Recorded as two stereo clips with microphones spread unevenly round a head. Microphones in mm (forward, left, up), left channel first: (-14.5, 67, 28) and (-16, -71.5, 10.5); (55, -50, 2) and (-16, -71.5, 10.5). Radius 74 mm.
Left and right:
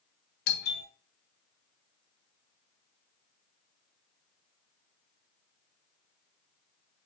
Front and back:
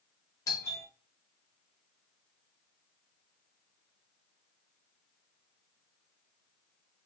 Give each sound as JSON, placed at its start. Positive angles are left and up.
{"t": 0.5, "sound": "a doorbell", "azimuth_deg": 75, "distance_m": 0.9}